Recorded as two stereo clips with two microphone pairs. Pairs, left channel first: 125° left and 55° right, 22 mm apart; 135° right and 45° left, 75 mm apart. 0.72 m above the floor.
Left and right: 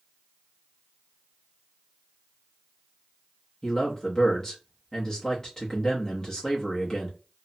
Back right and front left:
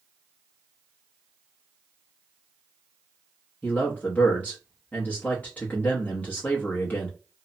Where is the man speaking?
165° left, 0.7 m.